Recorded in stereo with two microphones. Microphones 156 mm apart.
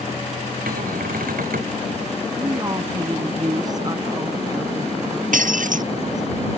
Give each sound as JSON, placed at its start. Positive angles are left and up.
{"t": 0.7, "sound": "a cupboard door", "side_deg": -85}
{"t": 2.4, "sound": "a woman speaking", "side_deg": -25}
{"t": 5.3, "sound": "breaking glass", "side_deg": -65}